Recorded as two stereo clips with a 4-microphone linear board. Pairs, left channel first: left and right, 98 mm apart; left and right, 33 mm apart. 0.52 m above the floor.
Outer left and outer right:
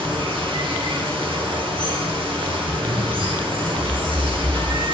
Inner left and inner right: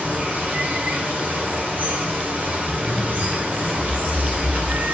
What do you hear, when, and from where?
0.0 s running water: 60° right (ahead or behind), 1.3 m
2.6 s a zipper: 70° right (ahead or behind), 1.6 m